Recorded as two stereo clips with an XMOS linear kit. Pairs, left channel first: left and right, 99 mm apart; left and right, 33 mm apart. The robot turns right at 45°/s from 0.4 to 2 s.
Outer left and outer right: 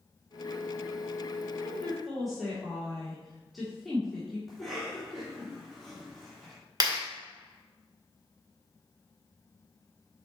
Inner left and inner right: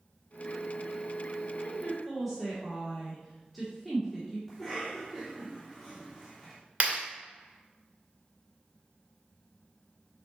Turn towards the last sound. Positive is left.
turn(degrees=-45)  # may be behind; listen again after turning